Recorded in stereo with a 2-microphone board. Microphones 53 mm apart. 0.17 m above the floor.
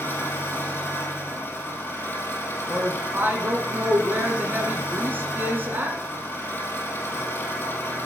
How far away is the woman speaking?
About 1.4 m.